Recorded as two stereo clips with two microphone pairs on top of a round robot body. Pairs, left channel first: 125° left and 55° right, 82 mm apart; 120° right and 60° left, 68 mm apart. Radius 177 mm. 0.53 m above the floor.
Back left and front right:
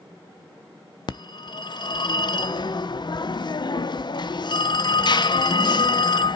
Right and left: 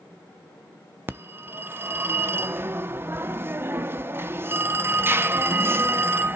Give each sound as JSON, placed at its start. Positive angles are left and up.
{"t": 1.1, "sound": "a phone ringing", "azimuth_deg": 115, "distance_m": 0.5}